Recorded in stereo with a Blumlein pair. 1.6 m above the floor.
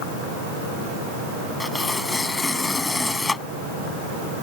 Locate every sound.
1.6 s tearing paper: 10° left